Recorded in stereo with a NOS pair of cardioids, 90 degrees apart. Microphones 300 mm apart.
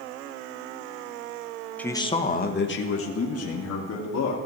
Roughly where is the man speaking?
Ahead.